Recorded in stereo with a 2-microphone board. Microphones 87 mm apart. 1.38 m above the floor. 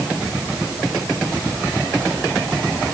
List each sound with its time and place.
Only background noise.